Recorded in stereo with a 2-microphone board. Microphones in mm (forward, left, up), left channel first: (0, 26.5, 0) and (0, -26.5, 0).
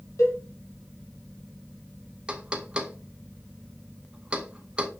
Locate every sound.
0.2 s a cowbell: 65° left (ahead or behind), 2.5 m
2.3 s knocking: 15° right (ahead or behind), 0.9 m